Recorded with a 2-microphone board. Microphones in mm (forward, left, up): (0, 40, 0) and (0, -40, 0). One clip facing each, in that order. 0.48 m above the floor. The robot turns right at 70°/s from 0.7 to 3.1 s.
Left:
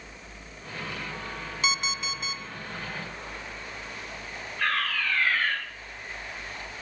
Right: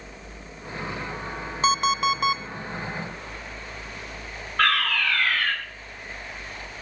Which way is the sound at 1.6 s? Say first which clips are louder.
Right 10 dB; 135° right.